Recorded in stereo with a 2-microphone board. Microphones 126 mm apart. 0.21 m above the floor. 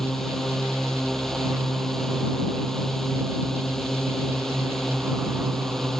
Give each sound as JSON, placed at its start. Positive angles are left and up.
{"t": 0.0, "sound": "a drone", "side_deg": 5}